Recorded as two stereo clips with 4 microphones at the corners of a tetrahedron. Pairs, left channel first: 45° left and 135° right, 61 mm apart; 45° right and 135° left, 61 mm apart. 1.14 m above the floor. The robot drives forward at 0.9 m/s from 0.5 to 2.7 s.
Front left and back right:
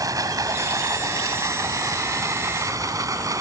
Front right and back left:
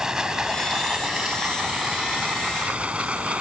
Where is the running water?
145° right; by 3.4 s 155° right.